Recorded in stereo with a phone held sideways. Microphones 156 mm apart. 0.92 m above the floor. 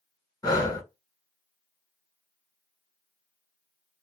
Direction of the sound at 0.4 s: 25° left (ahead or behind).